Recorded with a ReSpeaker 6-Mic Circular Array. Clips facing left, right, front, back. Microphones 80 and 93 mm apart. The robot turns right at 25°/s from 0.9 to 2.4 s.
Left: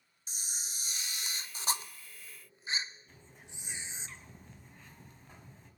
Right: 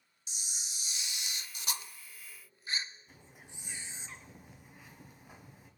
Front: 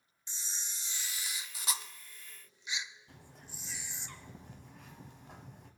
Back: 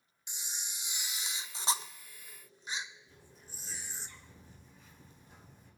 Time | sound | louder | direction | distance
0.3 | a camera shutter | left 1 dB, back 1 dB | 115° left | 0.7 m
3.1 | a bird | even, front 3 dB | 10° right | 1.6 m